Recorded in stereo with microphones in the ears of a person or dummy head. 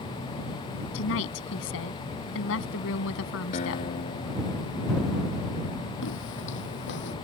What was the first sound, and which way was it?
A woman speaking, 70° left (ahead or behind).